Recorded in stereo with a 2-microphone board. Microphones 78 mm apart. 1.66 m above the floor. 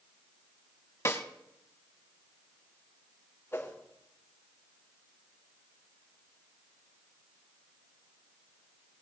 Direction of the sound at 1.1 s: 40° left (ahead or behind).